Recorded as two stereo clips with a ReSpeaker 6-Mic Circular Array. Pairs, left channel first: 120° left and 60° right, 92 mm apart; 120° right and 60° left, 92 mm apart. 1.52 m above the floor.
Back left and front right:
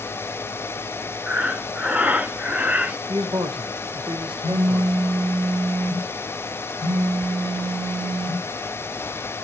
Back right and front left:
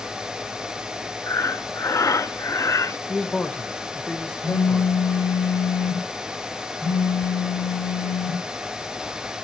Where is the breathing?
125° right, 0.5 m.